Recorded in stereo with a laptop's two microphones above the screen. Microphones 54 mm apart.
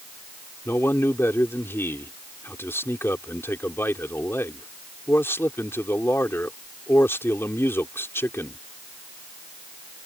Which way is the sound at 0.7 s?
50° left (ahead or behind).